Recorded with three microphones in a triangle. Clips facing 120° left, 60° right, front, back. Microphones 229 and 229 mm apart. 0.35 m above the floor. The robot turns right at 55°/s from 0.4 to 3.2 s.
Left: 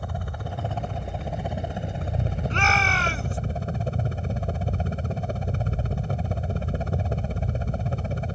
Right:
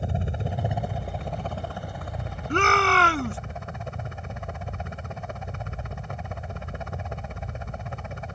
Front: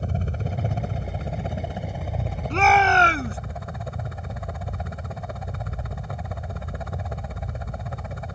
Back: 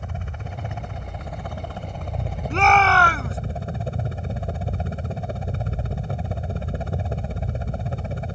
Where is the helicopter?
10° right; by 8.4 s 145° left.